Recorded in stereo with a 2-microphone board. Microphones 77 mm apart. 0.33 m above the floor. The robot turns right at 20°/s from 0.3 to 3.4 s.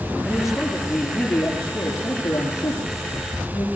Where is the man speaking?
5° right, 7 m; by 3.7 s 55° left, 7 m.